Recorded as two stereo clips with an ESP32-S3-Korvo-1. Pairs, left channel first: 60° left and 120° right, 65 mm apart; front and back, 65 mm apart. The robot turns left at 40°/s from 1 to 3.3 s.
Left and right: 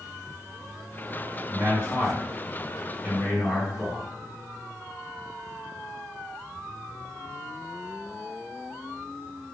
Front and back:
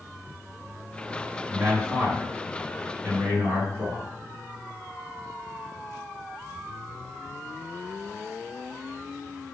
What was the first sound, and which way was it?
A man speaking, 120° right.